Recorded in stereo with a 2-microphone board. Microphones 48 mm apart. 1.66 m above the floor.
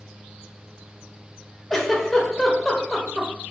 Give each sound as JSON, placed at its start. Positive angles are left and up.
{"t": 1.7, "sound": "a giggle", "side_deg": 5, "distance_m": 0.9}